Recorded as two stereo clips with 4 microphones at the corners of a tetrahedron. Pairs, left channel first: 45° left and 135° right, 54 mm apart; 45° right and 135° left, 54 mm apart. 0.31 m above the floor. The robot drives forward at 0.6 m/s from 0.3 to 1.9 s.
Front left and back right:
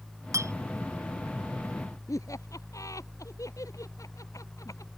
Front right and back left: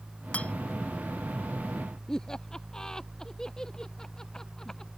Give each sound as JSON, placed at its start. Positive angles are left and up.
{"t": 0.3, "sound": "a clink", "azimuth_deg": -110}
{"t": 2.1, "sound": "laughter", "azimuth_deg": 35}